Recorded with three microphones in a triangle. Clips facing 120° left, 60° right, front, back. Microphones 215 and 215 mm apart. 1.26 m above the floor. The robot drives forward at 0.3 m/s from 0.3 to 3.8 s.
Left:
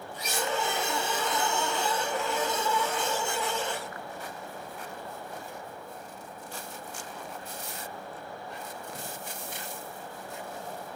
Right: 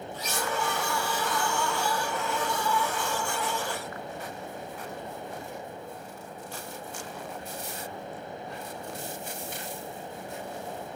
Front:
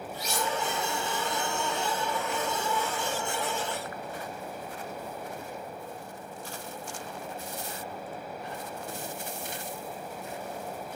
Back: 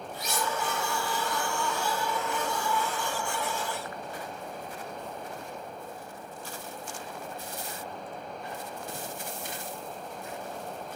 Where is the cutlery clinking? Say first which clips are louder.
Left 1 dB, even; 170° right, 0.9 m.